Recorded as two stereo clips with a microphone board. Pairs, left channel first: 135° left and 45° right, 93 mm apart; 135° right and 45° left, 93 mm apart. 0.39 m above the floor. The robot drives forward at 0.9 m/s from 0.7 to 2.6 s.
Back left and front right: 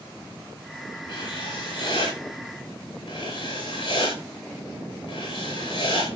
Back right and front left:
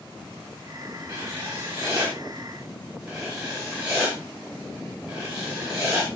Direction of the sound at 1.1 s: 115° left.